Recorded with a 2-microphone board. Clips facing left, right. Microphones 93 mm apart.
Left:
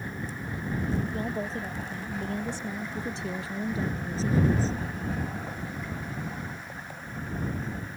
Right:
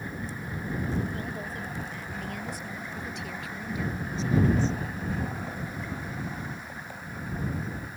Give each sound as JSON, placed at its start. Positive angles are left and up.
{"t": 1.1, "sound": "a woman speaking", "side_deg": 25}